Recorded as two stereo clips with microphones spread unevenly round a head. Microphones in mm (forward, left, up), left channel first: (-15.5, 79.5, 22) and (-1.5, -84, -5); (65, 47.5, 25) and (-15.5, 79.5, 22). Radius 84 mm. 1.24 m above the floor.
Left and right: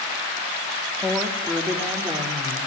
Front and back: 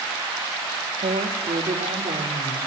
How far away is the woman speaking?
About 3 m.